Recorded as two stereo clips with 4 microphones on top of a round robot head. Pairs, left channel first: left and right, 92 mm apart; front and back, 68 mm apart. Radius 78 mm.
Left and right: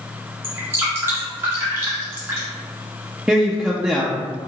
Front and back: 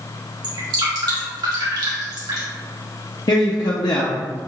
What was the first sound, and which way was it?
Dripping, 155° right.